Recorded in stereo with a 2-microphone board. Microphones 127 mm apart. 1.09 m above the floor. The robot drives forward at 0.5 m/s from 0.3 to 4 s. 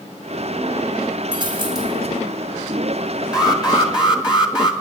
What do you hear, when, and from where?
1.3 s a dropped coin: 35° right (ahead or behind), 5 m; by 2.2 s 30° right (ahead or behind), 5.5 m
3.3 s an alarm: 30° left (ahead or behind), 2.5 m; by 4.7 s 35° left (ahead or behind), 2 m